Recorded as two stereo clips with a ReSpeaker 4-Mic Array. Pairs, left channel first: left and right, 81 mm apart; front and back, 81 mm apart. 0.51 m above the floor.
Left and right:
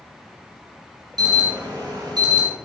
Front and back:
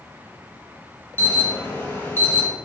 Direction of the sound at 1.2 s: 60° right.